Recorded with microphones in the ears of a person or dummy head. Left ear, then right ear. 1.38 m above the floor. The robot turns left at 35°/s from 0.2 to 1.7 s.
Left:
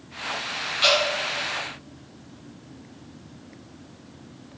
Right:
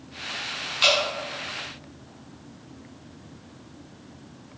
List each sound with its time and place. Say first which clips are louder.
0.8 s dripping: even; 20° right (ahead or behind), 1.0 m; by 1.0 s 15° right (ahead or behind), 1.0 m